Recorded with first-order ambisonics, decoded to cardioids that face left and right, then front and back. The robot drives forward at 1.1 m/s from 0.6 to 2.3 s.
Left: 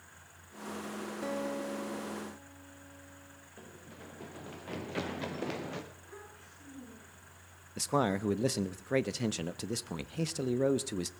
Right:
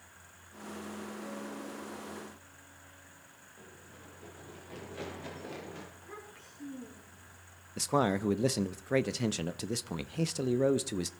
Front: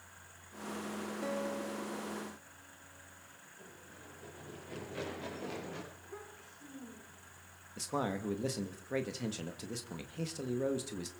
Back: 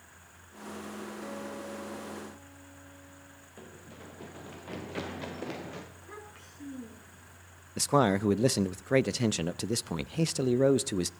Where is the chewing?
No chewing in this recording.